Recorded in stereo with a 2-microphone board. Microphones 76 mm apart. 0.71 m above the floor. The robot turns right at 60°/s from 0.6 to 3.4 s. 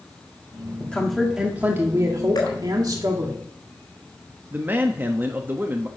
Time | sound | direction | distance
0.8 | a woman speaking | 160° left | 1.6 m
2.4 | dripping | 70° left (ahead or behind) | 3.5 m
4.5 | a man speaking | 25° right (ahead or behind) | 0.8 m